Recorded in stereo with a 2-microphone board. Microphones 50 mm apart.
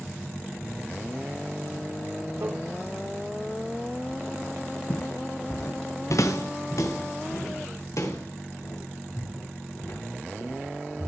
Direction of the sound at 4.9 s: 70° left (ahead or behind).